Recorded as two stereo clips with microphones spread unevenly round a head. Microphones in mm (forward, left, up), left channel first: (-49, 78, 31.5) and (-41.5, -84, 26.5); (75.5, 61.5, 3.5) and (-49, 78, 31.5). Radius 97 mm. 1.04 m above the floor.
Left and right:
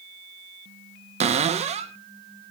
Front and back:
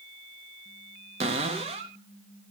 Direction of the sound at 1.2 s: 130° right.